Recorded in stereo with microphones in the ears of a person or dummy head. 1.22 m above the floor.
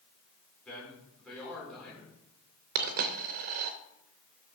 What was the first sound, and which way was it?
A man speaking, 5° left (ahead or behind).